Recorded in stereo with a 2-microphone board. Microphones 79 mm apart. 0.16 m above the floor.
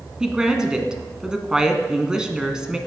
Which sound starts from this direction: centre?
A woman speaking, at 0.2 s.